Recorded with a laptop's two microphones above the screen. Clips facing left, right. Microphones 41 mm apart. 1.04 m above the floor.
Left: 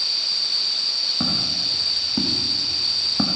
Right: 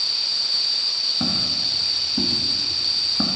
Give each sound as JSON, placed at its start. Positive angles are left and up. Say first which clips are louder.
{"t": 1.2, "sound": "footsteps", "louder": "even", "side_deg": 65, "distance_m": 4.0}